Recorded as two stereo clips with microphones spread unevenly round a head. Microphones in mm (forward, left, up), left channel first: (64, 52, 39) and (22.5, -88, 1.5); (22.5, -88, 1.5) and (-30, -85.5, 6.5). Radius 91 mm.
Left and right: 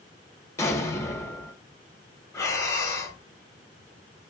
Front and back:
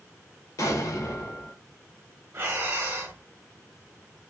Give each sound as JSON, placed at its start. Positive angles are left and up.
{"t": 0.6, "sound": "an explosion", "azimuth_deg": 15, "distance_m": 0.9}
{"t": 2.3, "sound": "breathing", "azimuth_deg": 155, "distance_m": 0.9}